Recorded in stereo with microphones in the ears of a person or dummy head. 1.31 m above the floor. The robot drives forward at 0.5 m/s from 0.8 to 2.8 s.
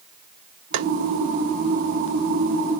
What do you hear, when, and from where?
0.7 s tapping: 85° right, 0.6 m; by 0.9 s 90° right, 0.6 m